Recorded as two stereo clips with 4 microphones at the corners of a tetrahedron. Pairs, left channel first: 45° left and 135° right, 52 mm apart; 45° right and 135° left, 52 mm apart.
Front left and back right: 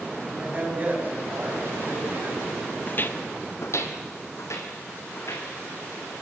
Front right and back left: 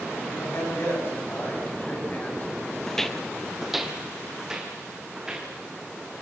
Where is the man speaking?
75° right, 7.5 m; by 2.5 s 100° right, 5.5 m.